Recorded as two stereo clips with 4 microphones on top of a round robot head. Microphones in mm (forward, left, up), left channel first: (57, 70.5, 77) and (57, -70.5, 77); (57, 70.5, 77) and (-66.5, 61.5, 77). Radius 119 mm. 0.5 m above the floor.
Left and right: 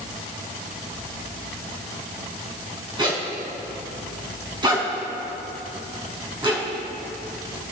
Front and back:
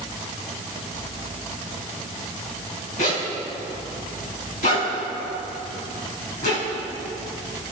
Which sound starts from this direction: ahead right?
A zipper, at 3.0 s.